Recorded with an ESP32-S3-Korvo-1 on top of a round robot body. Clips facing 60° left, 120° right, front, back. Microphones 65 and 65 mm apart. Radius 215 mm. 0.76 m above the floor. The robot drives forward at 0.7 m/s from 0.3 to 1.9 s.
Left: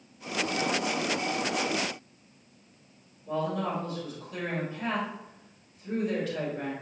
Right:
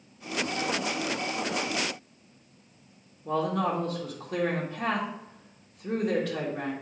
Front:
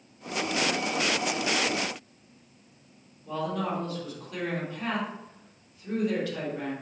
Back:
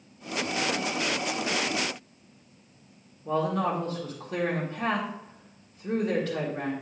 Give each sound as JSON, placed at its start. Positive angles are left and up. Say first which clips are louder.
{"t": 3.2, "sound": "a man speaking", "louder": "right 3 dB, back 4 dB", "azimuth_deg": -140, "distance_m": 2.0}